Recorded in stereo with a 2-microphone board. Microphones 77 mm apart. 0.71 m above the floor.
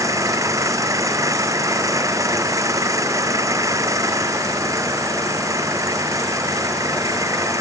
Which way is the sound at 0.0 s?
45° right (ahead or behind).